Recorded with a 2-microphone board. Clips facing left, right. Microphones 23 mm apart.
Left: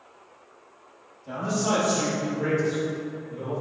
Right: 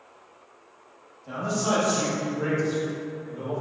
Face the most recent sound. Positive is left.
turn(degrees=-35)  # may be behind; listen again after turning